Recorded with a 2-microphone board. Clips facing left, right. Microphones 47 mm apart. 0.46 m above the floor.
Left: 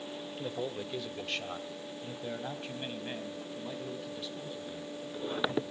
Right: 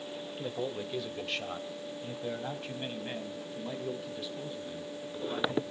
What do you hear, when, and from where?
0.4 s a man speaking: centre (ahead or behind), 1.2 m; by 5.6 s 5° right (ahead or behind), 4 m